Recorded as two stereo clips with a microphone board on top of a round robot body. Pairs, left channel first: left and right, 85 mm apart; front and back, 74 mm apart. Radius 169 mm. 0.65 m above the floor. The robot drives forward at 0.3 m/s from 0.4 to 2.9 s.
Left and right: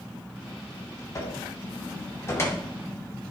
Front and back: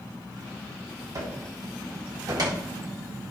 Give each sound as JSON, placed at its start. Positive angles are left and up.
{"t": 1.1, "sound": "a cupboard door", "azimuth_deg": 140, "distance_m": 1.7}